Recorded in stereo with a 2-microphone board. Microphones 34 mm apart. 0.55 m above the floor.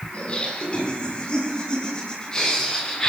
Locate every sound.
0.1 s laughter: 35° left (ahead or behind), 6 m; by 3.1 s 15° left (ahead or behind), 6 m